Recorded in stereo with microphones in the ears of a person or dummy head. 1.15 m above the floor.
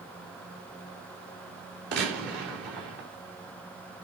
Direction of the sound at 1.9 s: 60° right (ahead or behind).